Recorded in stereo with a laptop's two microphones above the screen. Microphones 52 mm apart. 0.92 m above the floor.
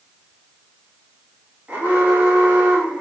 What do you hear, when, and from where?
1.7 s an alarm: 30° right (ahead or behind), 2.5 m